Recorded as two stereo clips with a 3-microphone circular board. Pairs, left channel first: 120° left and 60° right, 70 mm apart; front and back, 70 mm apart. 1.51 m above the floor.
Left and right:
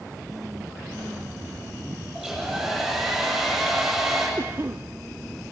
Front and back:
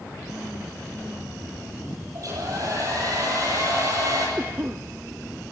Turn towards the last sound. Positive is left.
turn(degrees=-120)